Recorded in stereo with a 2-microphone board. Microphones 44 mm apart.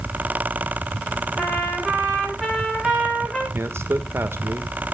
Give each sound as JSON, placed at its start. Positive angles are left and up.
{"t": 1.4, "sound": "a trumpet", "side_deg": 10, "distance_m": 9.5}
{"t": 3.5, "sound": "a man speaking", "side_deg": -65, "distance_m": 1.5}